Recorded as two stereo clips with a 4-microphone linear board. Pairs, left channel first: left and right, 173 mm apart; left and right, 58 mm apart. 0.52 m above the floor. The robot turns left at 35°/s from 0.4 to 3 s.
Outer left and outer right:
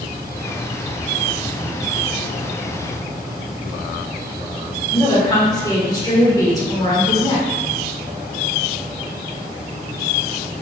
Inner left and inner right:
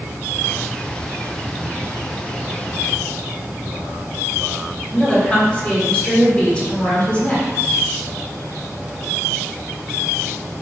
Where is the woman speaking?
20° left (ahead or behind), 1.3 m.